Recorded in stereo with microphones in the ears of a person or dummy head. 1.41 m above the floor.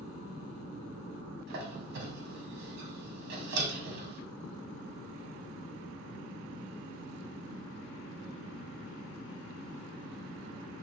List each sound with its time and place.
1.5 s a squeak: 50° right (ahead or behind), 1.0 m